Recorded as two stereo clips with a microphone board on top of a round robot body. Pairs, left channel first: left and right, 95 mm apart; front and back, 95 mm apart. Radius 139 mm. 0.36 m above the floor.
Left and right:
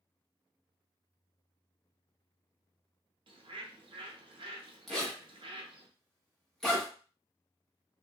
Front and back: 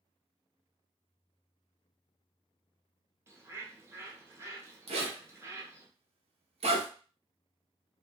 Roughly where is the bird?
Behind right.